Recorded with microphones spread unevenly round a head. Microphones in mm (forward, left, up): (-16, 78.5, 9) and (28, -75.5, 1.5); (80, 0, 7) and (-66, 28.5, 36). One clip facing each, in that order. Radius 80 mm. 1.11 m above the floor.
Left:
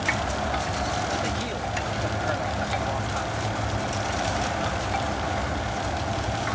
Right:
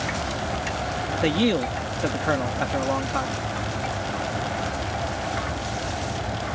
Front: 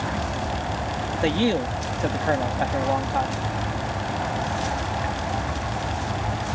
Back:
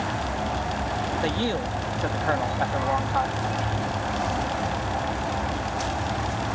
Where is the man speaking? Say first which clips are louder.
Right 8 dB, front 8 dB; 80° right.